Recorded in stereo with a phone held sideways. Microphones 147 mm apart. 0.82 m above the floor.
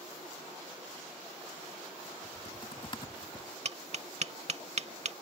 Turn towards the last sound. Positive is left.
turn(degrees=-50)  # may be behind; listen again after turning